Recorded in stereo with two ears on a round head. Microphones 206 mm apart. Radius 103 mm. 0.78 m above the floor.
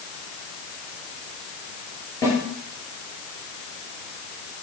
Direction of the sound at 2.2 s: 15° left (ahead or behind).